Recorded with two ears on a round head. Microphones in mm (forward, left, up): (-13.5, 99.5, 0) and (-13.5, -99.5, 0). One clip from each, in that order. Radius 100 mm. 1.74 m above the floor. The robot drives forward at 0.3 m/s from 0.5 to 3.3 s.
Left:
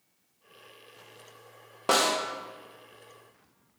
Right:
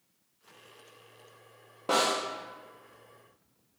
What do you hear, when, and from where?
1.9 s a snare drum: 35° left (ahead or behind), 0.5 m